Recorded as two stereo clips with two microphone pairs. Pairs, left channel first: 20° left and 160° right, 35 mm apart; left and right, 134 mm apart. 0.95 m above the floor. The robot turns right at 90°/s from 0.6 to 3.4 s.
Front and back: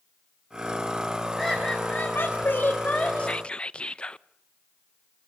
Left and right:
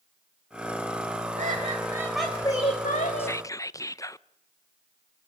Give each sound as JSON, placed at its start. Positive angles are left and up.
{"t": 1.4, "sound": "laughter", "azimuth_deg": -75, "distance_m": 3.5}
{"t": 3.2, "sound": "whispering", "azimuth_deg": 35, "distance_m": 0.6}